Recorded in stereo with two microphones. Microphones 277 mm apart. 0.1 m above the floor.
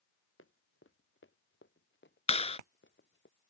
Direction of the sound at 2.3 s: 25° left (ahead or behind).